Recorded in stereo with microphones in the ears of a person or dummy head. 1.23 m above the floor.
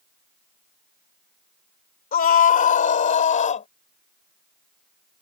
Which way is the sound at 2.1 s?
45° left (ahead or behind).